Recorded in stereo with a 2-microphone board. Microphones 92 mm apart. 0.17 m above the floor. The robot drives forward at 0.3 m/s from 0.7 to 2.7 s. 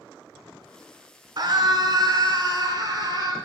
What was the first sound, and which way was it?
A scream, 50° right (ahead or behind).